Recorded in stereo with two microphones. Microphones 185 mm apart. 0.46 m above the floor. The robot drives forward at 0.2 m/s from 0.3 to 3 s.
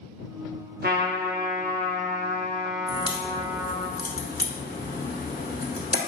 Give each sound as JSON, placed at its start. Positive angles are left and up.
{"t": 0.8, "sound": "a trumpet", "side_deg": -60, "distance_m": 0.6}
{"t": 2.9, "sound": "a crack", "side_deg": 55, "distance_m": 0.9}